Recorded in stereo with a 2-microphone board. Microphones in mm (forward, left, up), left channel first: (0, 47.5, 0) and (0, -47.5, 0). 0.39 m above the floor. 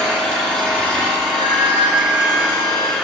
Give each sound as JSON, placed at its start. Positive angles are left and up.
{"t": 0.0, "sound": "an engine running", "side_deg": 10, "distance_m": 2.5}
{"t": 1.3, "sound": "a flute", "side_deg": 80, "distance_m": 6.0}